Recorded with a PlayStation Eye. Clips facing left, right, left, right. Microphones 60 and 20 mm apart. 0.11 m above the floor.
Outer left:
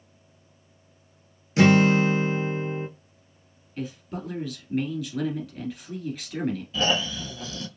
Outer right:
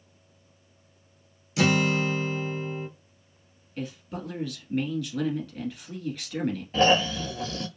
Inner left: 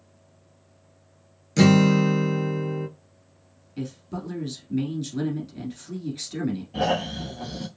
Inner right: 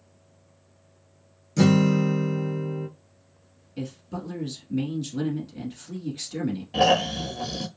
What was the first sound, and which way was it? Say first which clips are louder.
A guitar: outer left 6 dB, inner left 2 dB; 40° left (ahead or behind).